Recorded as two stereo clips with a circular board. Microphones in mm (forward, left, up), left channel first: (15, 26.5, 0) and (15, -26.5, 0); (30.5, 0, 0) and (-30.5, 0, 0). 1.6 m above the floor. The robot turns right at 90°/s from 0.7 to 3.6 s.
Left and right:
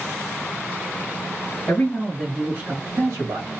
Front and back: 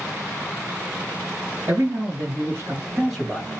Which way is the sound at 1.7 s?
130° left.